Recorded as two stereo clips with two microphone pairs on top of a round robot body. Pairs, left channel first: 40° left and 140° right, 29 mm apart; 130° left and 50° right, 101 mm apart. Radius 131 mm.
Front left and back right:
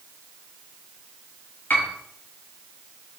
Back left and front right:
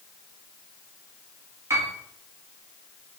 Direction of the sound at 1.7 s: 15° left.